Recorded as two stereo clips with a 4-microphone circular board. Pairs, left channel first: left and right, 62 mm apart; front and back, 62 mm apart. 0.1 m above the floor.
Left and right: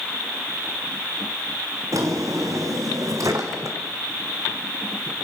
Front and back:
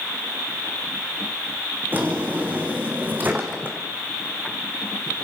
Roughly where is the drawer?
Behind right.